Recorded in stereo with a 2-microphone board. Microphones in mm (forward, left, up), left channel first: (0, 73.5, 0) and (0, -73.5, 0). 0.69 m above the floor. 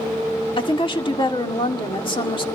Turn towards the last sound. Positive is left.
turn(degrees=35)  # may be behind; listen again after turning